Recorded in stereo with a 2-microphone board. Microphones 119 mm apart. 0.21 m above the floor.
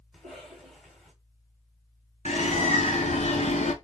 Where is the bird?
75° left (ahead or behind), 0.6 m.